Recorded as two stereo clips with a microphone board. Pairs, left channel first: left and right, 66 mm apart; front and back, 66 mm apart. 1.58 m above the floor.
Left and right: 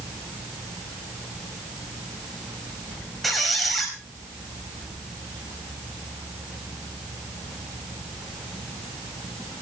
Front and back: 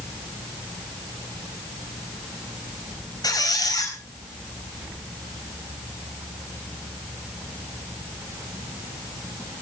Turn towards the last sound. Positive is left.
turn(degrees=0)